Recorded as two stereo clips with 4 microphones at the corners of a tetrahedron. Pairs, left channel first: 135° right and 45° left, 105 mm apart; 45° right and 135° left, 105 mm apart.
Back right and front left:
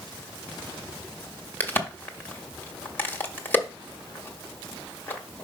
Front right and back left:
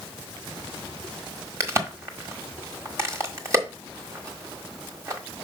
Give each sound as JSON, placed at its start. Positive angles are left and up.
{"t": 1.6, "sound": "a crack", "azimuth_deg": 170, "distance_m": 1.2}